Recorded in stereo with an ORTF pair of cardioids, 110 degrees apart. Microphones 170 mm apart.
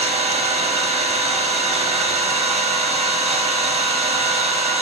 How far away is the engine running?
About 0.8 m.